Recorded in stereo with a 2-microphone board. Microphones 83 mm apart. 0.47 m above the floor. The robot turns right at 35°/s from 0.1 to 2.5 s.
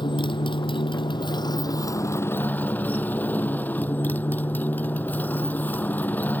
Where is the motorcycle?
75° left; by 6.4 s 155° left.